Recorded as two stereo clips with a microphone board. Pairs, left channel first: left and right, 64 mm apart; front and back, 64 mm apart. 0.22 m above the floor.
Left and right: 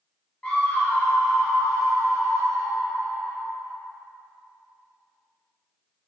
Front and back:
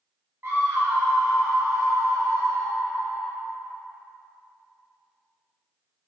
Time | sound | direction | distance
0.4 | a scream | 150° left | 1.8 m